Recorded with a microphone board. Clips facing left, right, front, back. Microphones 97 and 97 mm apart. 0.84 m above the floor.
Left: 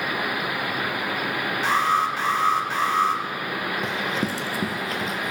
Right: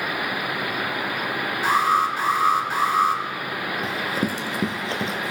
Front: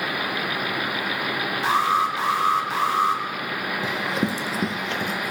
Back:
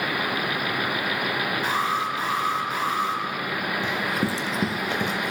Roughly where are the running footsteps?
Ahead.